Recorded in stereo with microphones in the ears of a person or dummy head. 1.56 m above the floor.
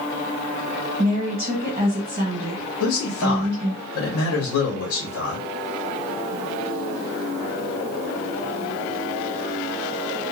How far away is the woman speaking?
About 1.3 m.